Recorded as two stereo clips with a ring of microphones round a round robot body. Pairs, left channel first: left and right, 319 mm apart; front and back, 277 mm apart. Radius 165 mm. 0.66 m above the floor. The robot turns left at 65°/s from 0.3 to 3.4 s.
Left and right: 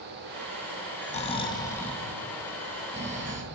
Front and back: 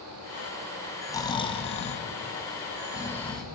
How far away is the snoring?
About 0.8 m.